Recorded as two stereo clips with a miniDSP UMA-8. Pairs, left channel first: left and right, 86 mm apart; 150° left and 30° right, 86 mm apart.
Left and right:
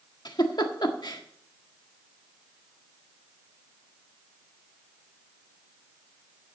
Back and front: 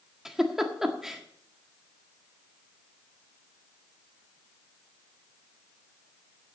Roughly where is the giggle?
Ahead left.